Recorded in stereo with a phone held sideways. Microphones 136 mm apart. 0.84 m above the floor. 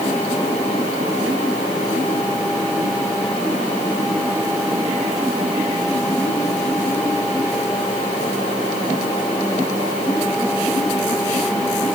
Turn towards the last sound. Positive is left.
No sound to turn to.